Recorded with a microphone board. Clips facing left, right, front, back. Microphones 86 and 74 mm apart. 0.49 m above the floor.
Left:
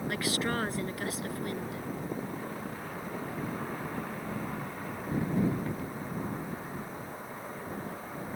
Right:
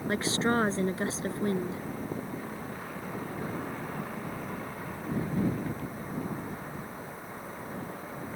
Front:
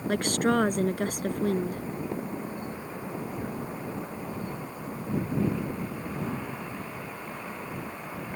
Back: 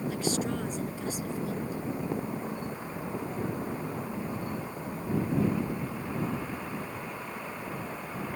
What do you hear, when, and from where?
0.1 s a woman speaking: 25° right